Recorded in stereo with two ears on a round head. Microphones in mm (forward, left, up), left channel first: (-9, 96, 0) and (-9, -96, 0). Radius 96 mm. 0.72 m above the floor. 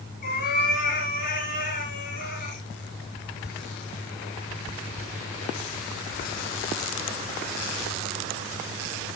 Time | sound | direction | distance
0.2 | a cat meowing | 40° left (ahead or behind) | 5 m